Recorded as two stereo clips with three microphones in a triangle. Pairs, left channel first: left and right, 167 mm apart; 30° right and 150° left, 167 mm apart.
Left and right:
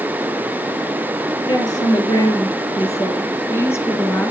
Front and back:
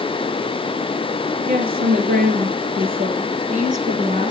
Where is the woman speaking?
155° left, 3.5 m; by 4.3 s 165° left, 2 m.